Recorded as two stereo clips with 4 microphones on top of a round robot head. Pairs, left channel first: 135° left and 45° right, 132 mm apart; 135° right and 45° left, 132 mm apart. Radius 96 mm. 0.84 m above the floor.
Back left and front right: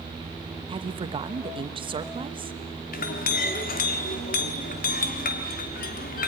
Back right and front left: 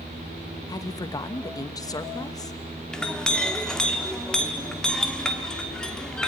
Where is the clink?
140° left, 1.2 m.